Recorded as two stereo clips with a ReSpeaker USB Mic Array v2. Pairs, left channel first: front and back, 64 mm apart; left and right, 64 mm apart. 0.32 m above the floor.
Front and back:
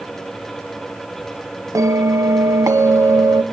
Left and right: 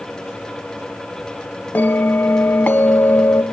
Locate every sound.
1.8 s a bell: 150° left, 0.9 m